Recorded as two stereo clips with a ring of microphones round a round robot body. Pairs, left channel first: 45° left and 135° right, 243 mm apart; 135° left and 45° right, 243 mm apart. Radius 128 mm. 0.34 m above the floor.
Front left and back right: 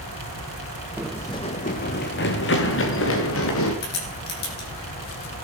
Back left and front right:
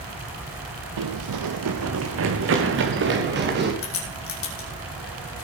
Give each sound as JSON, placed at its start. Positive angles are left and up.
{"t": 1.0, "sound": "running footsteps", "azimuth_deg": -50, "distance_m": 0.8}
{"t": 3.8, "sound": "a crack", "azimuth_deg": 95, "distance_m": 4.0}